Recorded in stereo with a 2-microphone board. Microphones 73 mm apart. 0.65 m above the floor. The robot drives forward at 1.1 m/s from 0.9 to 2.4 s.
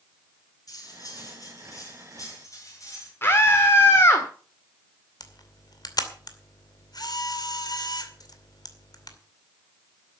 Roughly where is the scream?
Left.